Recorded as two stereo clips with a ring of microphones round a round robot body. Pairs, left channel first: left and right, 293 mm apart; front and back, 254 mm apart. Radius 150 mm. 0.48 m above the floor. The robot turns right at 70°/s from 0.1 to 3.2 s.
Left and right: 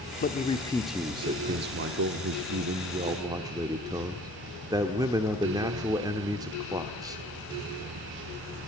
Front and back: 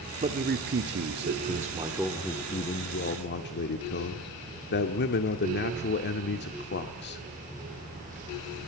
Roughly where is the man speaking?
Behind left.